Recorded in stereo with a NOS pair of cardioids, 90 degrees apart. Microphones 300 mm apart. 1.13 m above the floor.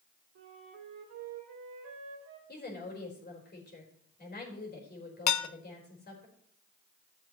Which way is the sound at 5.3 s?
70° left.